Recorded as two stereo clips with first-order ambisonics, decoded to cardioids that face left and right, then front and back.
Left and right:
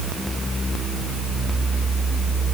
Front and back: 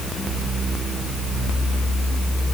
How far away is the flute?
I don't hear a flute.